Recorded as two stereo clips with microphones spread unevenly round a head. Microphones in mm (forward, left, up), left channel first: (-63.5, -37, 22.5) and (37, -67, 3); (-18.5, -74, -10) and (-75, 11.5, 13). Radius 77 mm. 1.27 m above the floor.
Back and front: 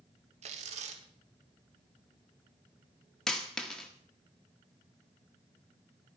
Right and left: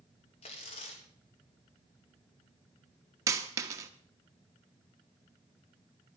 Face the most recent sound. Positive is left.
turn(degrees=90)